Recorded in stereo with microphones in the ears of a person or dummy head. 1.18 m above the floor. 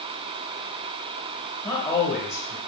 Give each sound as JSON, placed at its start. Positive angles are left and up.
{"t": 1.6, "sound": "a man speaking", "side_deg": 20, "distance_m": 1.6}